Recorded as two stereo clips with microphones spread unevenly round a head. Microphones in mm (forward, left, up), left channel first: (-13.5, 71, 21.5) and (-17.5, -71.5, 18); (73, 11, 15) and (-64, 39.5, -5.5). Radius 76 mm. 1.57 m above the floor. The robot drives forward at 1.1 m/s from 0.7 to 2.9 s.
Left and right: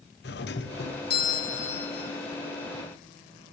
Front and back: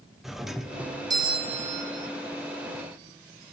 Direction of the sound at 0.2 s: 80° left.